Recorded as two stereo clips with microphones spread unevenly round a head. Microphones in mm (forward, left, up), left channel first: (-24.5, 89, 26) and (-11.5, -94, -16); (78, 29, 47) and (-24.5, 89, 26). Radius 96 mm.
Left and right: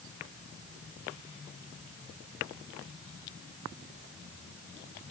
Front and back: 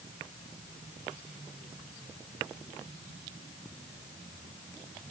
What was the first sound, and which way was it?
Only background noise.